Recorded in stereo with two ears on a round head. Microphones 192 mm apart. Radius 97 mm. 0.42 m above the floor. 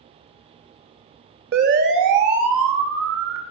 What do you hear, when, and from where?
1.5 s a siren: 50° right (ahead or behind), 2.5 m; by 3.4 s 65° right (ahead or behind), 3.5 m